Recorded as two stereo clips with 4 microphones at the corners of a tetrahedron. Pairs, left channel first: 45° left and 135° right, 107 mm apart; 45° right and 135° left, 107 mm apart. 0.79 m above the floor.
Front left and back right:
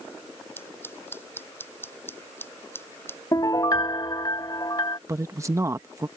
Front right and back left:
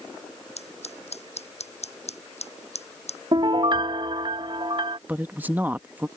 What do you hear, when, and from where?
0.6 s scissors: 25° right
3.3 s a piano: 95° left
5.1 s a man speaking: 170° right